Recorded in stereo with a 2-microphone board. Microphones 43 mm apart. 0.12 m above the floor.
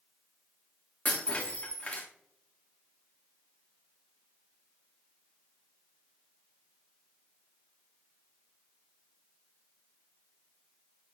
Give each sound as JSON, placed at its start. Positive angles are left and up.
{"t": 1.1, "sound": "breaking glass", "side_deg": 30, "distance_m": 3.0}